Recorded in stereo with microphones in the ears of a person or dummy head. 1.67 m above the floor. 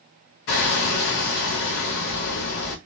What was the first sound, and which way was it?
Hammering, 50° left (ahead or behind).